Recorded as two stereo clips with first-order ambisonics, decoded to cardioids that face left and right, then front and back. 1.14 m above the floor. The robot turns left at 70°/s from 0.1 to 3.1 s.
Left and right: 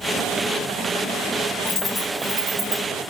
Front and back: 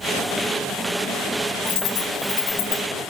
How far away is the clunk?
No clunk in this recording.